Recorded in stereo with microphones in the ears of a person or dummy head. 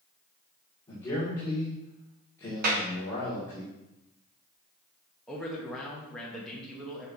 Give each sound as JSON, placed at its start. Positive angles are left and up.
{"t": 0.9, "sound": "a man speaking", "side_deg": 10, "distance_m": 2.5}
{"t": 2.6, "sound": "a clap", "side_deg": -55, "distance_m": 1.3}
{"t": 5.3, "sound": "a man speaking", "side_deg": 0, "distance_m": 1.3}